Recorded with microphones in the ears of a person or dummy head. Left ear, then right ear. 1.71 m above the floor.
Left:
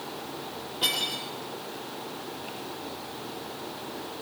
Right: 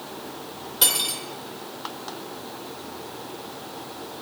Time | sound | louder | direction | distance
0.8 | cutlery clinking | right 3 dB | 70° right (ahead or behind) | 3.5 m